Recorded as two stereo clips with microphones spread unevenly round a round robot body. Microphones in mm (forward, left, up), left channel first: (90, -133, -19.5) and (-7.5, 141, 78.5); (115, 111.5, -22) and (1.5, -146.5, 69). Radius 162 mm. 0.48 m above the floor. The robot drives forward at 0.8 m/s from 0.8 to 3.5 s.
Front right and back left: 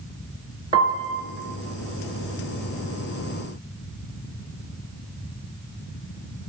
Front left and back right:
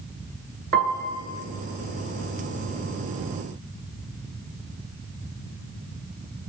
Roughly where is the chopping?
I don't hear chopping.